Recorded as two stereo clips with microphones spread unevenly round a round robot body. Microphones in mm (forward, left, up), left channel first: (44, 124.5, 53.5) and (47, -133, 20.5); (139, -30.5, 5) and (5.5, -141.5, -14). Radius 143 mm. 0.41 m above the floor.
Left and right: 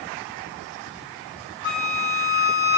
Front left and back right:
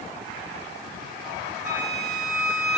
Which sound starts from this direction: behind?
A flute, at 1.6 s.